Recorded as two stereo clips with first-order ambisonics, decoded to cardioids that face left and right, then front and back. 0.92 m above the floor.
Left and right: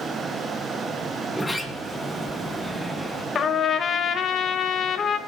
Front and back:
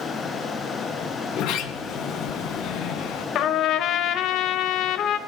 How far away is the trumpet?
About 0.9 m.